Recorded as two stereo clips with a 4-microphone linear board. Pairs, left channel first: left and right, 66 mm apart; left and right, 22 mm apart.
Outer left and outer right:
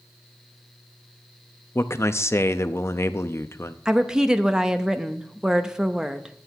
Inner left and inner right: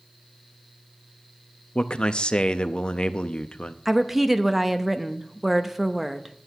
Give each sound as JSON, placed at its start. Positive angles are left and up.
{"t": 1.8, "sound": "a man speaking", "side_deg": 40, "distance_m": 0.6}
{"t": 3.9, "sound": "a woman speaking", "side_deg": -10, "distance_m": 0.6}